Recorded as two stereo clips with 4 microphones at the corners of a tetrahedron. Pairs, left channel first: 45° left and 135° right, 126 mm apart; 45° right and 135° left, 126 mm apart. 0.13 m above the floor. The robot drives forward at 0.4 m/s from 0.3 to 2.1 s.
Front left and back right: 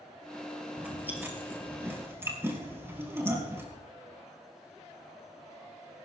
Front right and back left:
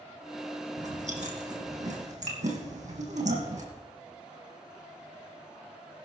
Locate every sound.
0.8 s chewing: 150° left, 2.5 m; by 3.6 s 155° left, 2.5 m